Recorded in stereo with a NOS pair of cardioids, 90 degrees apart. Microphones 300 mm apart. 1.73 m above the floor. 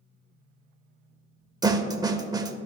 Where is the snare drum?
15° right, 0.6 m.